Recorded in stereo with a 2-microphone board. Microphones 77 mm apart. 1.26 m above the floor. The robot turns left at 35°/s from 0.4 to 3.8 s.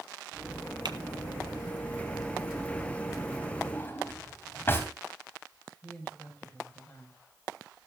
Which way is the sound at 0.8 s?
70° right (ahead or behind).